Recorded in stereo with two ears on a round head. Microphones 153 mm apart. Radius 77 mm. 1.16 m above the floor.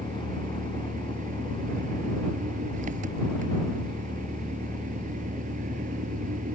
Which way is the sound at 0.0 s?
50° right (ahead or behind).